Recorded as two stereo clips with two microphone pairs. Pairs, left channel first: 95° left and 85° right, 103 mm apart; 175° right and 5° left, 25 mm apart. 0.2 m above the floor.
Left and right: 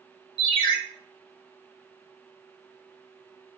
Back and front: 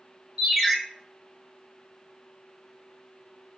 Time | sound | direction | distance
0.4 | a ringtone | 75° left | 1.6 m